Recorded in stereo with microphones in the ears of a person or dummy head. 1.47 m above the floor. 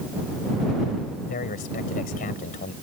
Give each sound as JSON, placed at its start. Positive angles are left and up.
{"t": 1.3, "sound": "a man speaking", "side_deg": 40}